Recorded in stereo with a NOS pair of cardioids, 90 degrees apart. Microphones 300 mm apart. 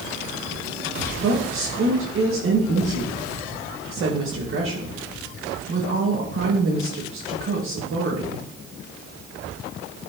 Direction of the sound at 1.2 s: 45° right.